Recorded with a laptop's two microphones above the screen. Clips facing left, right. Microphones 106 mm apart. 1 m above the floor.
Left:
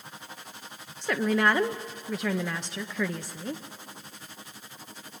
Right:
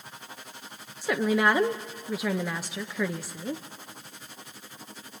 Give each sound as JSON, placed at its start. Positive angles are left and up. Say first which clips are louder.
{"t": 1.0, "sound": "a woman speaking", "louder": "right 1 dB", "side_deg": -5, "distance_m": 0.7}